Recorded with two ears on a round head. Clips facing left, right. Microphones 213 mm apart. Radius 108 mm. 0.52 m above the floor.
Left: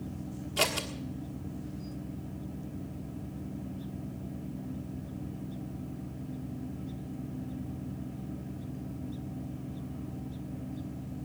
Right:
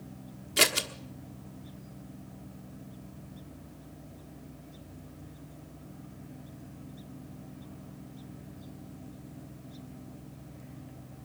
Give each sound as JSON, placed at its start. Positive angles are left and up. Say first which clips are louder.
{"t": 0.6, "sound": "scissors", "louder": "right 2 dB", "side_deg": -25, "distance_m": 1.3}